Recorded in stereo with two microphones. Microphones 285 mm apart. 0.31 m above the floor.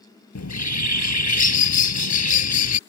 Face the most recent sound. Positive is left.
turn(degrees=70)  # may be behind; listen again after turning